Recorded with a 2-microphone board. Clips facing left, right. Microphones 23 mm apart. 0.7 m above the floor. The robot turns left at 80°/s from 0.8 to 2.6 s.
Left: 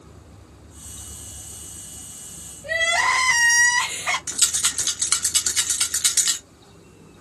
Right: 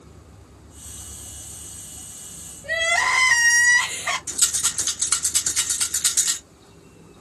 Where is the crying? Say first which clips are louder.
Even; 20° left (ahead or behind), 2.5 m.